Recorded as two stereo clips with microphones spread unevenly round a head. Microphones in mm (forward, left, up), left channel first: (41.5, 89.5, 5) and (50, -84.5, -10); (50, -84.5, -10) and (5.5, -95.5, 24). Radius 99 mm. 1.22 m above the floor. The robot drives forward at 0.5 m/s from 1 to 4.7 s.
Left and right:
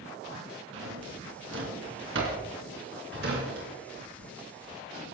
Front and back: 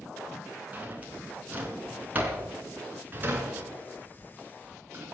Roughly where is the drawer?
Behind right.